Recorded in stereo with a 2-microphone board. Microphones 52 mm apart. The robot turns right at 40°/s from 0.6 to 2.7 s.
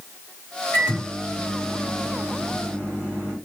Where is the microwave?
55° left, 1.8 m; by 3.4 s 135° left, 1.8 m.